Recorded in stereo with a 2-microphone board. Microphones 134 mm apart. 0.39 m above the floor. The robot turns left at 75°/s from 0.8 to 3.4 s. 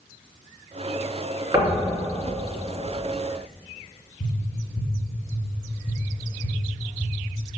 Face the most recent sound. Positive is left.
turn(degrees=50)  # may be behind; listen again after turning